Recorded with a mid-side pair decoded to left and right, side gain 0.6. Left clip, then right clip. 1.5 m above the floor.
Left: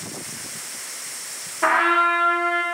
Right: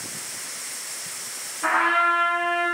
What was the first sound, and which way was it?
A trumpet, 70° left.